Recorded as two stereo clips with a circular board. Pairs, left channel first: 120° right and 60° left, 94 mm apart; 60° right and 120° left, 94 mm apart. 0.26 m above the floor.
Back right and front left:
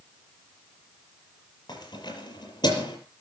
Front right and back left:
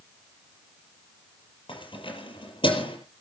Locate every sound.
1.7 s keys jangling: 80° right, 5.5 m